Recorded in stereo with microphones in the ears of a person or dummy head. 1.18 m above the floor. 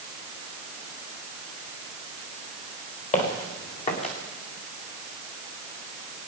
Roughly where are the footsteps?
Left.